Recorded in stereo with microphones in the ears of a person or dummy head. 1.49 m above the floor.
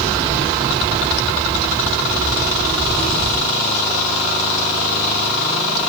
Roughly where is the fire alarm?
No fire alarm in this recording.